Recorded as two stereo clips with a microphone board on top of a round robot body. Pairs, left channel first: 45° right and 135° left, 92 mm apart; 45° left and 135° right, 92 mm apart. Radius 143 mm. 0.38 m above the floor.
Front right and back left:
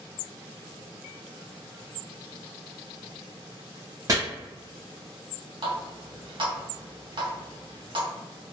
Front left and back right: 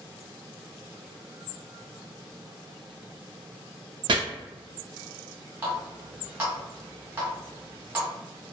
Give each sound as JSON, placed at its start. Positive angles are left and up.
{"t": 4.1, "sound": "chopping", "azimuth_deg": -170, "distance_m": 0.6}
{"t": 5.6, "sound": "a running tap", "azimuth_deg": 160, "distance_m": 1.4}